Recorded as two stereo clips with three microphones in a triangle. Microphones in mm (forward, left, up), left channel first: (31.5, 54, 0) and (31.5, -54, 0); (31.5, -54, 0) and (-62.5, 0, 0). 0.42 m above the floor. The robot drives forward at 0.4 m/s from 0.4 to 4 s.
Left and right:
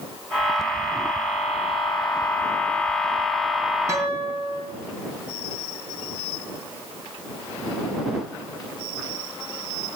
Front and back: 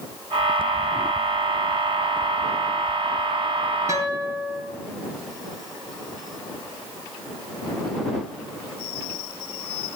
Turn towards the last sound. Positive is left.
turn(degrees=-150)